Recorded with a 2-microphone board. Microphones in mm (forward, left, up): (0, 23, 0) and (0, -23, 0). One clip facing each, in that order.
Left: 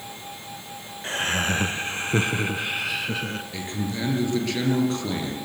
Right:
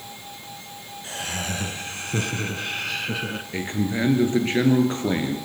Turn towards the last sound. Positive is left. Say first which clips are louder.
# right 8 dB
turn(degrees=-30)  # may be behind; listen again after turning